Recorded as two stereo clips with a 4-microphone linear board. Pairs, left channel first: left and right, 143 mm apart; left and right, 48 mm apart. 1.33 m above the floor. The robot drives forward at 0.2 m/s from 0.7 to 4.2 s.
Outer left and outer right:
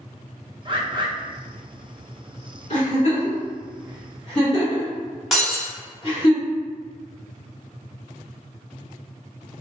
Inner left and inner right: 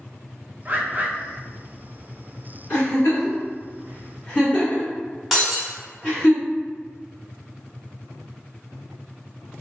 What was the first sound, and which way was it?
A bird, 35° right (ahead or behind).